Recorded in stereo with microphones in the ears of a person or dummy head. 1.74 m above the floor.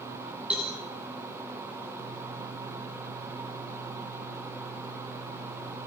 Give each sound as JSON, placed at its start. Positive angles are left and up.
{"t": 0.5, "sound": "a cowbell", "side_deg": -10, "distance_m": 3.0}